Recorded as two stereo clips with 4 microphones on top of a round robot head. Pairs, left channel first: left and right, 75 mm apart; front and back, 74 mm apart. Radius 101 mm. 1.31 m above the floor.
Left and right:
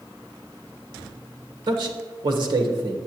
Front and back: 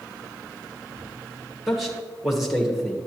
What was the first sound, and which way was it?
A man speaking, 95° right.